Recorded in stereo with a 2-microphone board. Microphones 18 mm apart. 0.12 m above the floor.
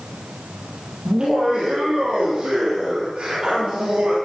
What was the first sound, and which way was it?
Laughter, 60° right (ahead or behind).